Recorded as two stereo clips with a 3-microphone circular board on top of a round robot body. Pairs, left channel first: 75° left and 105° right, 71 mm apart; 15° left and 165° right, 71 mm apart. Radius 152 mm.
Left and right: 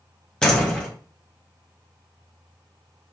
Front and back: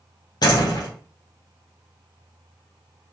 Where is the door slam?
5° right, 3 m.